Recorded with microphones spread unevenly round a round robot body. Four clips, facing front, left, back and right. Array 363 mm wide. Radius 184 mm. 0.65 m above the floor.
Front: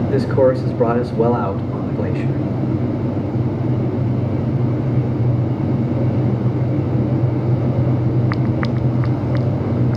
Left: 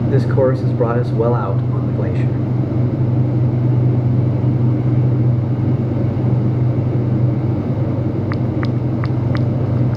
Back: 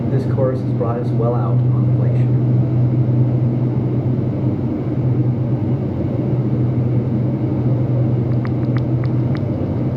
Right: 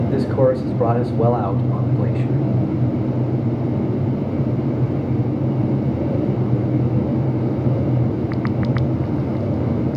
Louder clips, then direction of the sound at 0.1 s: Left 2 dB, front 5 dB; 50° left.